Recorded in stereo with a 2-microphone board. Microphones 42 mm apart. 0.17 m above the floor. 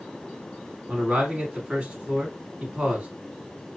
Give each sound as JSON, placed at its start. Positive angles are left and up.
{"t": 0.9, "sound": "a man speaking", "side_deg": -30, "distance_m": 1.4}